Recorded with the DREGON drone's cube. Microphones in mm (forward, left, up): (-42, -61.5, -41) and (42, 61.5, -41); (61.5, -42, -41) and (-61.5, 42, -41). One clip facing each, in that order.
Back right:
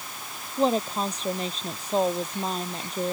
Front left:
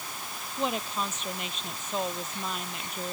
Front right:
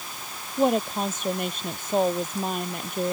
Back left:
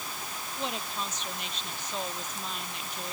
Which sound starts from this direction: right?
A woman speaking, at 0.6 s.